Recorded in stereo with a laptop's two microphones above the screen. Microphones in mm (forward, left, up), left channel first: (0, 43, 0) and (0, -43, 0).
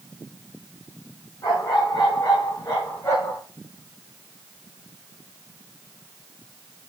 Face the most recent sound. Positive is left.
turn(degrees=35)  # may be behind; listen again after turning